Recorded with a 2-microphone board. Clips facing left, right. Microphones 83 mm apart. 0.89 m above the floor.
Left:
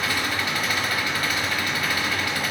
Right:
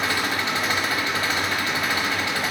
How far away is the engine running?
About 0.9 m.